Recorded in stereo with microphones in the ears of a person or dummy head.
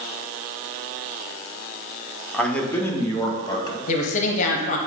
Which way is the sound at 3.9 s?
45° left (ahead or behind).